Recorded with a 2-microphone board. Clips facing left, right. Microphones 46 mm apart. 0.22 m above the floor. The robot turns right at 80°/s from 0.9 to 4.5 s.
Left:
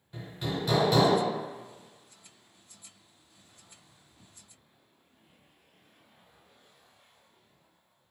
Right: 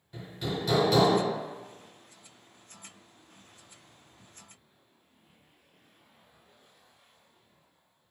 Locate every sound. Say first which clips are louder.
0.1 s hammering: even; 5° left (ahead or behind), 1.3 m; by 1.2 s 5° right (ahead or behind), 1.3 m